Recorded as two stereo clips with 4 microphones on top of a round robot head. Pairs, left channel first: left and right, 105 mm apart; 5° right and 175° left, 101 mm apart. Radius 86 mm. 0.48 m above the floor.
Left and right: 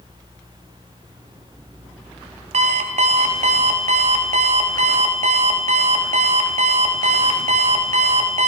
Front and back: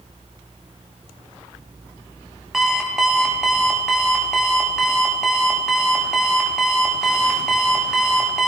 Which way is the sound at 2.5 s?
95° right.